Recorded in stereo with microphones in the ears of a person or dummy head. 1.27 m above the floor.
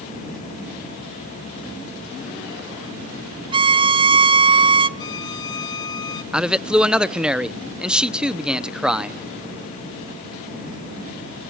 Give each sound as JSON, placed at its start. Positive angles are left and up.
{"t": 3.5, "sound": "a violin", "side_deg": -25, "distance_m": 0.5}
{"t": 5.0, "sound": "a violin", "side_deg": 25, "distance_m": 1.2}
{"t": 6.3, "sound": "a man speaking", "side_deg": 0, "distance_m": 0.6}